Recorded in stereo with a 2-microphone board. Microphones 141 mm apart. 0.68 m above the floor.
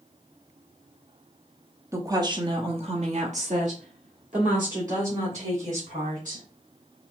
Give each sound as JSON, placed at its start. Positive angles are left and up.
{"t": 1.9, "sound": "a woman speaking", "side_deg": -20, "distance_m": 0.9}